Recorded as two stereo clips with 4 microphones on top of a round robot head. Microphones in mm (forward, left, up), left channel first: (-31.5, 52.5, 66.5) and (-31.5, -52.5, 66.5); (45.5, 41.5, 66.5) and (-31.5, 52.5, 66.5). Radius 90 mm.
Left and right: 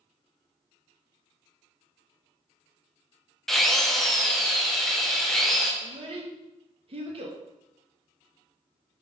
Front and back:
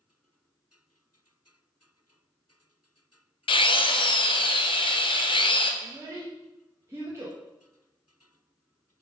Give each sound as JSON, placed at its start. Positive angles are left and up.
{"t": 3.5, "sound": "a drill", "azimuth_deg": 5, "distance_m": 0.9}
{"t": 5.8, "sound": "a child speaking", "azimuth_deg": -120, "distance_m": 1.4}